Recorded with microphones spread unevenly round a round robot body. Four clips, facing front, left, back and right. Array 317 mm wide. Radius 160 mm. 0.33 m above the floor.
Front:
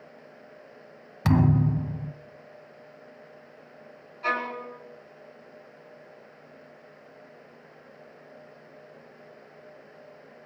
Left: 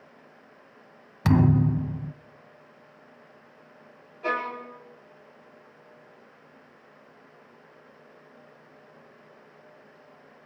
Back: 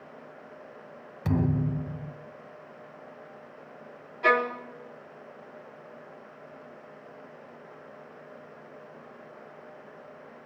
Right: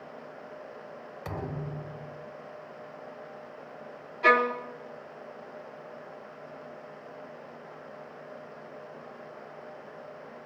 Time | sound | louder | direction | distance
1.2 | a thud | left 16 dB, front 5 dB | 55° left | 0.8 m
4.2 | a violin | right 6 dB, back 5 dB | 110° right | 2.5 m